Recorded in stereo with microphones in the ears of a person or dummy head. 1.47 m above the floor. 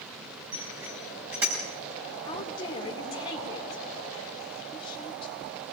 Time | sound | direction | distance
0.5 | a bicycle bell | 20° right (ahead or behind) | 6 m
2.2 | a woman speaking | 35° left (ahead or behind) | 5 m